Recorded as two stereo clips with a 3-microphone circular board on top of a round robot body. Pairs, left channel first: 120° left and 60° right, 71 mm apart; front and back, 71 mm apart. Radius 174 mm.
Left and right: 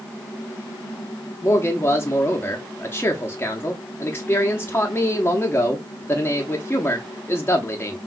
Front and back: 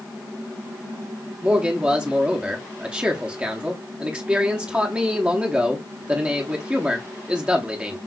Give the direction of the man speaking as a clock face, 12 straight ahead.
8 o'clock.